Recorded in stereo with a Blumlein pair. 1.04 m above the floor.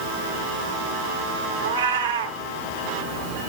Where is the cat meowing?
65° right, 1.9 m.